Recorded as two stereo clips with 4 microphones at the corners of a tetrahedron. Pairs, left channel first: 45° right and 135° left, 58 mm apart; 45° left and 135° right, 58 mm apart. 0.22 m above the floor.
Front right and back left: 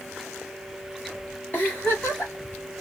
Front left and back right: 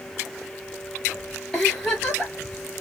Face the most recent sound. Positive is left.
turn(degrees=-35)